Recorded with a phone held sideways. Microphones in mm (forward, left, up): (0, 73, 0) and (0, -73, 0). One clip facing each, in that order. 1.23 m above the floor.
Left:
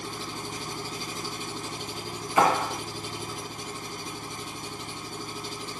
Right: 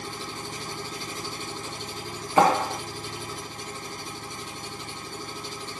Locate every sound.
0.0 s an engine running: 10° left (ahead or behind), 1.6 m
2.4 s a clap: 30° right (ahead or behind), 1.8 m